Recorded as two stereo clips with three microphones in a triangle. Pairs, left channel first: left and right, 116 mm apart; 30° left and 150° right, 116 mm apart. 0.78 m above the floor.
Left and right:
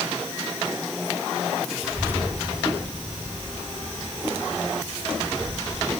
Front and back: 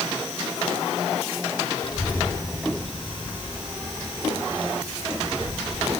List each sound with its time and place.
1.8 s a child speaking: 10° right, 2 m; by 5.9 s 110° right, 5.5 m